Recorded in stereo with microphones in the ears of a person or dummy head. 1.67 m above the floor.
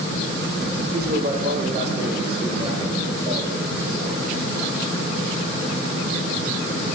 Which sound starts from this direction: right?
A man speaking, at 0.9 s.